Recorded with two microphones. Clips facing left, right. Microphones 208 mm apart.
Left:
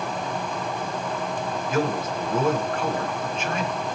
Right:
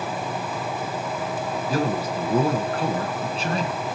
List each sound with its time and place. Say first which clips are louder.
1.7 s a man speaking: even; 35° right (ahead or behind), 2.5 m